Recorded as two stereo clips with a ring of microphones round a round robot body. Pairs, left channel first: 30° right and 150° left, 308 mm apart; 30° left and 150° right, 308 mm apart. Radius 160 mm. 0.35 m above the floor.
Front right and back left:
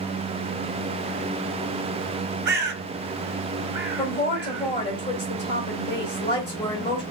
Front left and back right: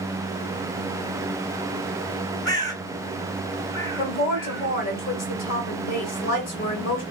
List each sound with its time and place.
2.5 s a bird: 105° left, 1.1 m
4.0 s a woman speaking: 10° right, 1.6 m